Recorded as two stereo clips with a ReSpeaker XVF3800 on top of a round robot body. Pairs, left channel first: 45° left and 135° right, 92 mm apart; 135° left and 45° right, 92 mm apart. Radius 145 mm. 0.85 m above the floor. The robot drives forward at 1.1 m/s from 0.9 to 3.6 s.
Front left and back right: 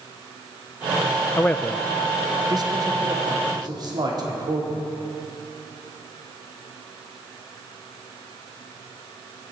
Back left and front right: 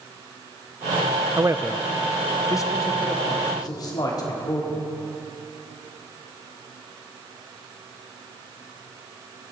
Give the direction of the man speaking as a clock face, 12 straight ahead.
12 o'clock.